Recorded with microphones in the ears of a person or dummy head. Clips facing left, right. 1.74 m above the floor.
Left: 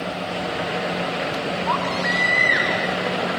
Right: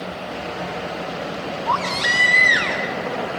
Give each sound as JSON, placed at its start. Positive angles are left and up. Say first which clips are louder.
{"t": 1.7, "sound": "a baby crying", "louder": "left 1 dB", "side_deg": -35, "distance_m": 1.0}